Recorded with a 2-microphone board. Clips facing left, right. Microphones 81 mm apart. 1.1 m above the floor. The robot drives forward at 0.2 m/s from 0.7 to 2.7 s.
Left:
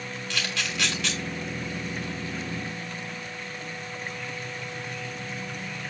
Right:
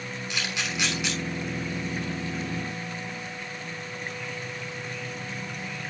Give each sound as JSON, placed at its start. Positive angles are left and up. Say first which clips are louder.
{"t": 0.3, "sound": "a camera shutter", "louder": "even", "side_deg": -20, "distance_m": 3.0}